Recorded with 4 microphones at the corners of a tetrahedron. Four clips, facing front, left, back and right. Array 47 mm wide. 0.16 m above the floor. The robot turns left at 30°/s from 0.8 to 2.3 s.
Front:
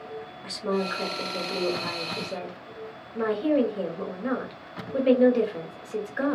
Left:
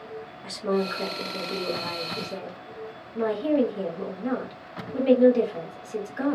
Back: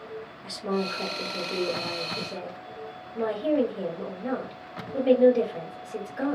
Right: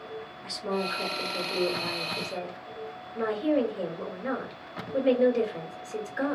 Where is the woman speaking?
40° left, 1.4 m; by 6.3 s 5° right, 1.4 m.